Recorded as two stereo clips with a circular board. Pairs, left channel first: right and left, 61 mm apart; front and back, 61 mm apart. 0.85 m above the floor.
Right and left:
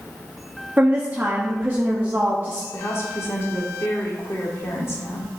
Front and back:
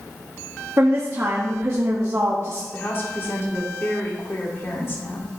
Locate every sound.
0.8 s a woman speaking: 145° left, 1.1 m
2.7 s a woman speaking: 50° right, 1.7 m